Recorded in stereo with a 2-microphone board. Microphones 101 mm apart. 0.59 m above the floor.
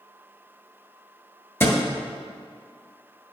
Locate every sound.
1.6 s a thud: 25° left (ahead or behind), 1.5 m